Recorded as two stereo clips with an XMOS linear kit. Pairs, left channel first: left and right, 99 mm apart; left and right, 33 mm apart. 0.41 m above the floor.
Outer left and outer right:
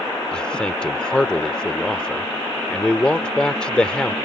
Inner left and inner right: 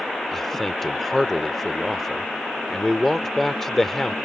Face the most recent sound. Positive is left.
turn(degrees=10)  # may be behind; listen again after turning